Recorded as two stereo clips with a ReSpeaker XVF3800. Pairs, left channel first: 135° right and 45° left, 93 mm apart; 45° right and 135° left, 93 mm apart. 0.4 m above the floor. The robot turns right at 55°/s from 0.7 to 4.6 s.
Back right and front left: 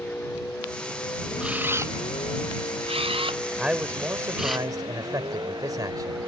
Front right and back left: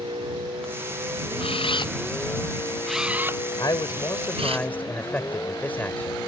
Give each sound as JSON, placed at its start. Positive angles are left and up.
{"t": 0.0, "sound": "a vehicle", "azimuth_deg": 155}
{"t": 1.4, "sound": "a camera shutter", "azimuth_deg": -35}
{"t": 3.6, "sound": "a man speaking", "azimuth_deg": -35}